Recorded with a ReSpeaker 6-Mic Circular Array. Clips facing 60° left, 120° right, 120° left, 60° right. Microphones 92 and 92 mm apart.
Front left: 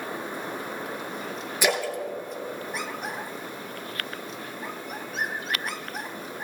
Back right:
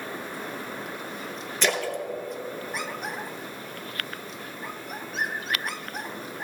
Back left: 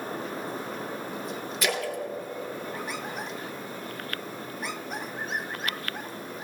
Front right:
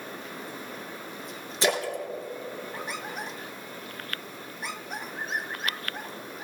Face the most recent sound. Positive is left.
turn(degrees=-15)